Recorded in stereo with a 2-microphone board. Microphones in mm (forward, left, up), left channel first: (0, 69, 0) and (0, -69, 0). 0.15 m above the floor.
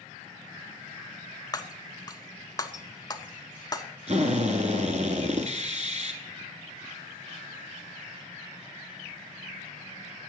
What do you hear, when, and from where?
1.5 s breaking glass: 30° left (ahead or behind), 0.6 m
4.1 s a drill: 55° right (ahead or behind), 1.2 m